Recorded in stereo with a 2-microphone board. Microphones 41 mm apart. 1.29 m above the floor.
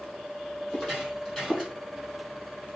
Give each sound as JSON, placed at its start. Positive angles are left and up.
{"t": 0.7, "sound": "footsteps", "side_deg": 25, "distance_m": 2.5}